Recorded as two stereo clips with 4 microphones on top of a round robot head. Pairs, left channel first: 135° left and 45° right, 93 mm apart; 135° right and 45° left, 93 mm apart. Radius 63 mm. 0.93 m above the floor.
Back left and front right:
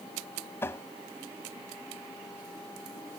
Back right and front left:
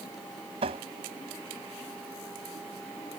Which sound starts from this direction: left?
Tapping, at 0.6 s.